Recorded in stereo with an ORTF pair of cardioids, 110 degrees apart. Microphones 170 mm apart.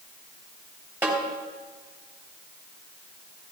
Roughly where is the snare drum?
Ahead.